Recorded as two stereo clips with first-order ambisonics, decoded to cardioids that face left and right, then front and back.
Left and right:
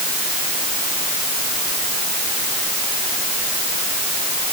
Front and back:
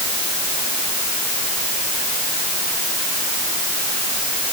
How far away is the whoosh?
I don't hear a whoosh.